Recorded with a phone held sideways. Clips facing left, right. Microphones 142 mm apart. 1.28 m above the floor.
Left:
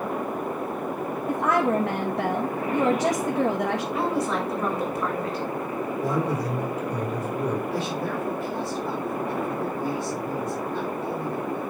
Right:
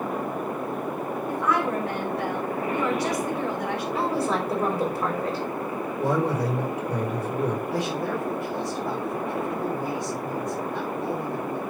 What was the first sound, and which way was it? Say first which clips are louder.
A woman speaking: left 3 dB; 45° left (ahead or behind).